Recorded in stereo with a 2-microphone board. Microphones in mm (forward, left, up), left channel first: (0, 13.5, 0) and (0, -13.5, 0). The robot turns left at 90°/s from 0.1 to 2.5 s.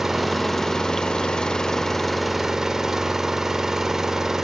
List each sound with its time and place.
0.0 s an engine running: 165° right, 0.7 m; by 4.4 s 25° right, 0.7 m